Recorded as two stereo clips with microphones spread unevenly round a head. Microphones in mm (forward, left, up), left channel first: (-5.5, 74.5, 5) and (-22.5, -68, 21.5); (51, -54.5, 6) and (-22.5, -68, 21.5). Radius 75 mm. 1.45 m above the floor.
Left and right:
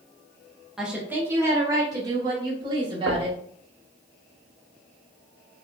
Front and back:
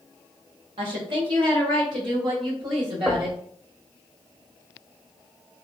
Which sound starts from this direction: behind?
A woman speaking, at 0.8 s.